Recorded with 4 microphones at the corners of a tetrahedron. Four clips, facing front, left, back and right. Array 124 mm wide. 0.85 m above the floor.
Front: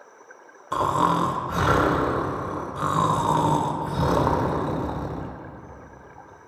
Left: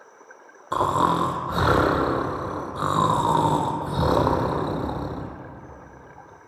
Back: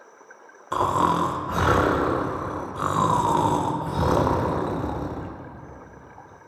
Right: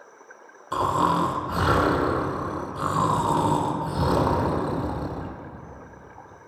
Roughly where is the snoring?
Left.